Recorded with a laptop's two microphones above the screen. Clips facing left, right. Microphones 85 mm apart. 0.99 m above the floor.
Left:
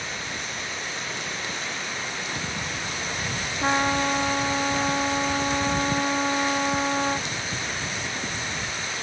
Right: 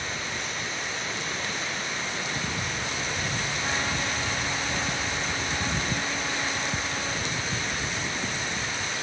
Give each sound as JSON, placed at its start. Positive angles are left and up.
{"t": 3.6, "sound": "a trumpet", "side_deg": 60}